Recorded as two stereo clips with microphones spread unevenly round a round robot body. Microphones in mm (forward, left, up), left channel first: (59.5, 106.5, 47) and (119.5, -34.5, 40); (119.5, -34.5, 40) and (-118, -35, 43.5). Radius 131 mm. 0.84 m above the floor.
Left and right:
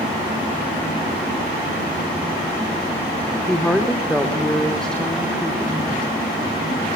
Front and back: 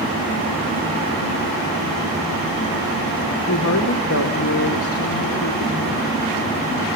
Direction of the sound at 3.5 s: 30° left.